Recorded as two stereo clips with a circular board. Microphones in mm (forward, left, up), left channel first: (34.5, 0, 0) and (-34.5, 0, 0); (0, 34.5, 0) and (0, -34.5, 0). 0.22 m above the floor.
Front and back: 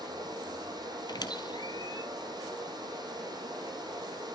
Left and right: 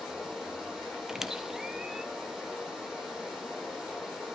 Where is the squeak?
5° right, 1.0 m.